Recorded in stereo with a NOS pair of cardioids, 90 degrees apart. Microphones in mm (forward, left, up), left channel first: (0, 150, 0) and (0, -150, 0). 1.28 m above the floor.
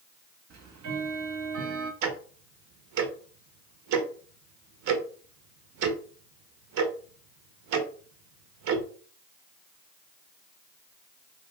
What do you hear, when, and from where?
0.5 s ticking: 65° right, 0.8 m
2.0 s ticking: 70° right, 0.7 m